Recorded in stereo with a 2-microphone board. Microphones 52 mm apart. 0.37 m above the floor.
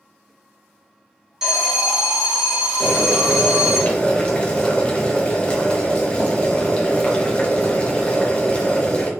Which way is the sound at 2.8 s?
25° left (ahead or behind).